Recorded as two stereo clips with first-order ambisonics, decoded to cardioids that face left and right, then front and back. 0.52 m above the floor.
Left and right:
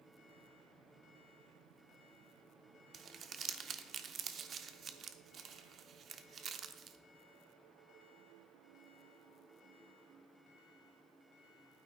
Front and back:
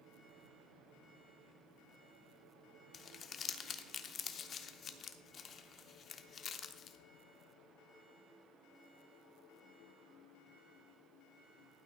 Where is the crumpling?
45° right, 0.5 m.